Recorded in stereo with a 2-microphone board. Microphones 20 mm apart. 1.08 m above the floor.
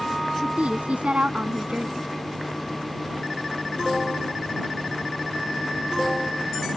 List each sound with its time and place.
0.4 s a woman speaking: 85° right